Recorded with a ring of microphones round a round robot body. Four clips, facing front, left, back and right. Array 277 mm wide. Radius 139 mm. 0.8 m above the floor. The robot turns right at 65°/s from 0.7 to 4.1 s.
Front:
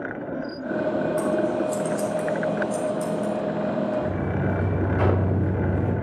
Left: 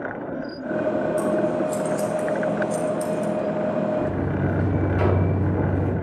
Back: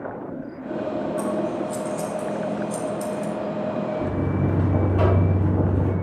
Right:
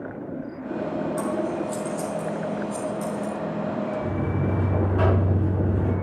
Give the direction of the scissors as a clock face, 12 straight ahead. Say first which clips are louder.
Left 4 dB, front 2 dB; 12 o'clock.